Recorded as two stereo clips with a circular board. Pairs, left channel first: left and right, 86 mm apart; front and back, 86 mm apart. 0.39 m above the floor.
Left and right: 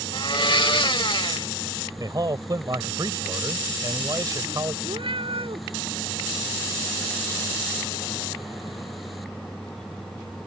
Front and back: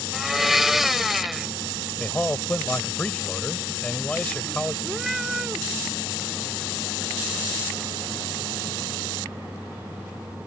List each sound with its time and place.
0.1 s a blender: 95° left
2.0 s a man speaking: 70° right
4.8 s a cat meowing: 95° right